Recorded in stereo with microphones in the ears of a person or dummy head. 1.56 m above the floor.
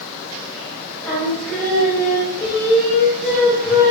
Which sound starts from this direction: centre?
Singing, at 1.0 s.